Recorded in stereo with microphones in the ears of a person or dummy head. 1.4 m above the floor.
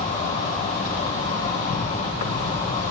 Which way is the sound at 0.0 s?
40° left (ahead or behind).